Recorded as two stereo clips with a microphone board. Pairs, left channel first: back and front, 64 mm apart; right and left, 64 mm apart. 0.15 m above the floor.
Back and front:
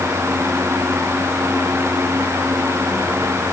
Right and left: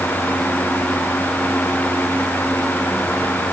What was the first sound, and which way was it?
Only background noise.